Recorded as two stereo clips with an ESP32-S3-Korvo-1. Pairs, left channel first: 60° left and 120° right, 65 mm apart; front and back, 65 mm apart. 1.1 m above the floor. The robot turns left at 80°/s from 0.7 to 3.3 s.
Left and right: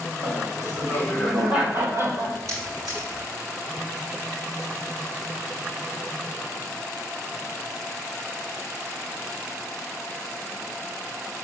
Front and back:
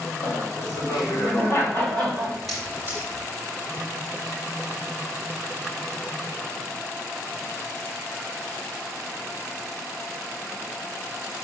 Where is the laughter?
25° left, 4.5 m; by 2.4 s 110° right, 4.5 m.